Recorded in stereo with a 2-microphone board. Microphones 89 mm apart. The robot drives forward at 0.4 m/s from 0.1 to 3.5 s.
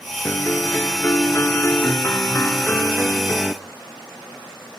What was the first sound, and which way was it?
A piano, 20° left (ahead or behind).